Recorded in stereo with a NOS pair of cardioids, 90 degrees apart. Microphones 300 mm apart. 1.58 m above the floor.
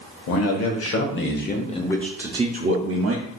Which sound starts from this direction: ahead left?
A man speaking, at 0.3 s.